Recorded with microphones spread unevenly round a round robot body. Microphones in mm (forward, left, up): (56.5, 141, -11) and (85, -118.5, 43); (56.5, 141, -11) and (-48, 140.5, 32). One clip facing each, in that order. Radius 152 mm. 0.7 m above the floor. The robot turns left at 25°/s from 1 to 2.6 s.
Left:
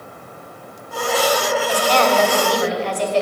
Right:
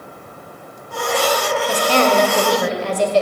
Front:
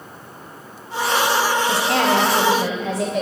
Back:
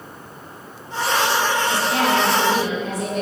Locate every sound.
1.7 s a woman speaking: 15° right, 2.5 m; by 3.2 s 35° right, 2.5 m